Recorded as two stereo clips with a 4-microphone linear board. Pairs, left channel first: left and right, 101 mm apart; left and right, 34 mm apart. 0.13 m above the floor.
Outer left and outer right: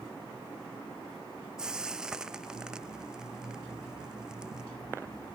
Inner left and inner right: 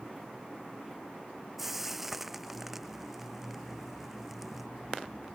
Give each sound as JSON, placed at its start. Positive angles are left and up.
{"t": 1.6, "sound": "frying", "side_deg": -10}